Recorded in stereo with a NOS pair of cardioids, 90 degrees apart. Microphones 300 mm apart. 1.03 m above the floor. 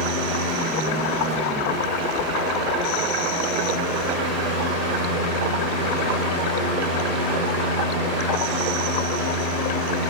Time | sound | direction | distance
0.0 | a fan | 55° right | 0.9 m